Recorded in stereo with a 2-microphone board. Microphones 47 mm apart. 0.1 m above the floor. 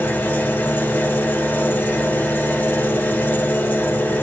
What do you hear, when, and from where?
0.0 s an engine running: 45° left (ahead or behind), 3 m